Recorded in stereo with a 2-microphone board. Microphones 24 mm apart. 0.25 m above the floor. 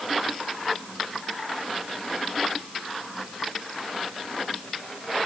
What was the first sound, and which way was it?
Only background noise.